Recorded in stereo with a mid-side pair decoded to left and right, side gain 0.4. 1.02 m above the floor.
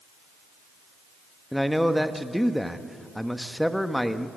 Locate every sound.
1.5 s a man speaking: straight ahead, 1.3 m